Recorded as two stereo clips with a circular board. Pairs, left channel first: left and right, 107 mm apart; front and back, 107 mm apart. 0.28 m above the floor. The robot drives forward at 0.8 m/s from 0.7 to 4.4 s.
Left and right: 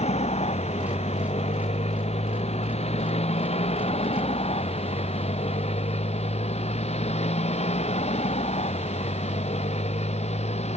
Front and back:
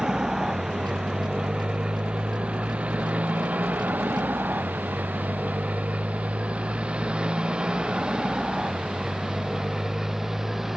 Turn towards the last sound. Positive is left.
turn(degrees=95)